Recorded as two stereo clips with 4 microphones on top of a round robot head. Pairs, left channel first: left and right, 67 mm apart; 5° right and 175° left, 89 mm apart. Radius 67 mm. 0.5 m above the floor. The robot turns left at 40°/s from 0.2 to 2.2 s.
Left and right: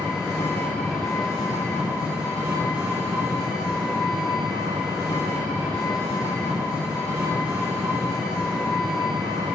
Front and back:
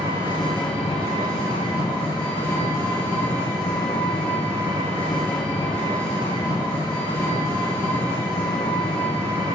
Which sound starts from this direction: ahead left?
An engine running, at 0.0 s.